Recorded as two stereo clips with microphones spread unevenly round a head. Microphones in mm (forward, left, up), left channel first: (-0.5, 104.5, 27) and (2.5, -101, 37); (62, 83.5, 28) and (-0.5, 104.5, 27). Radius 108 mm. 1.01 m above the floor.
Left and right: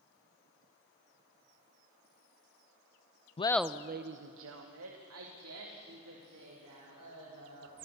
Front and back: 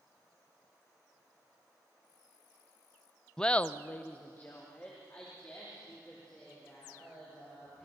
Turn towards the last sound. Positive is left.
turn(degrees=-95)